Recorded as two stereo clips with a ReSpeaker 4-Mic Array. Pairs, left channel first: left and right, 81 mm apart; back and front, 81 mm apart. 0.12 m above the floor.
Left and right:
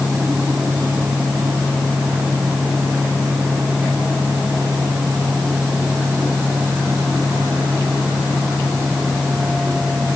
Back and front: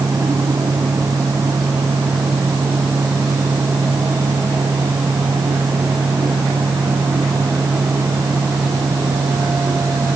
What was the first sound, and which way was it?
Only background noise.